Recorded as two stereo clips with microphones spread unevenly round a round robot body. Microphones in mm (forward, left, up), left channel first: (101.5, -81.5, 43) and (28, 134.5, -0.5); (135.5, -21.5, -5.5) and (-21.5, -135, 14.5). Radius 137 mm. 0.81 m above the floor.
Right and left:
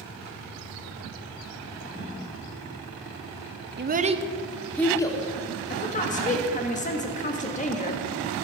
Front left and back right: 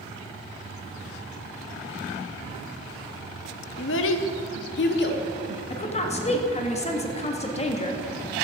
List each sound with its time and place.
3.8 s a child speaking: 70° left, 0.8 m; by 5.2 s 5° left, 1.5 m
5.7 s a woman speaking: 10° right, 1.5 m